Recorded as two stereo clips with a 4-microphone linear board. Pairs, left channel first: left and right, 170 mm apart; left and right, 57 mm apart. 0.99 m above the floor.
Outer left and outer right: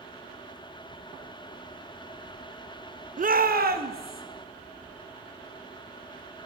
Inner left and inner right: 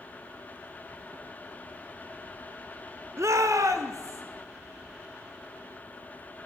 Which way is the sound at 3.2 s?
55° right (ahead or behind).